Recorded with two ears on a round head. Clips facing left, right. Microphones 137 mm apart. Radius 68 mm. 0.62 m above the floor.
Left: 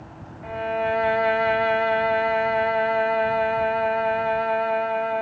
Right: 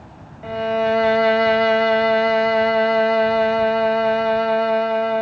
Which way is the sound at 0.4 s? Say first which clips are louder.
Right 5 dB; 45° right (ahead or behind).